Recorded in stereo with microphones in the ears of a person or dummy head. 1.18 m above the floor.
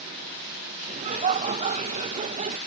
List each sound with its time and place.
0.9 s laughter: 35° right (ahead or behind)